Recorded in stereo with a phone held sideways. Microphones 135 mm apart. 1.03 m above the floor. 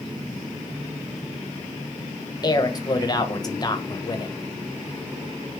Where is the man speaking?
30° left (ahead or behind), 0.5 m.